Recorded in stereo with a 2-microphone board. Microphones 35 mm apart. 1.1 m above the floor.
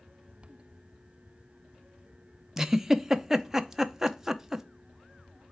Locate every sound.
2.6 s a giggle: 15° right (ahead or behind), 0.5 m